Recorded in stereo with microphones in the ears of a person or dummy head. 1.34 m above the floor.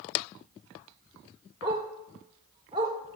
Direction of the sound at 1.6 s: 30° right (ahead or behind).